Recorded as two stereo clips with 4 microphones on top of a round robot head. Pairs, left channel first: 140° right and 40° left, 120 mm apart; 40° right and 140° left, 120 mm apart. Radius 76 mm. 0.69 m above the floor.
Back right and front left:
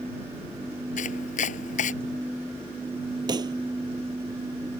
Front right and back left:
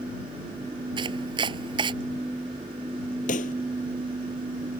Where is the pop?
20° right.